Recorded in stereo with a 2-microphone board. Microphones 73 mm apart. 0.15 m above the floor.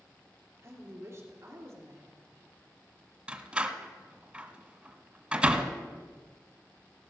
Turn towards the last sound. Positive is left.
turn(degrees=-15)  # may be behind; listen again after turning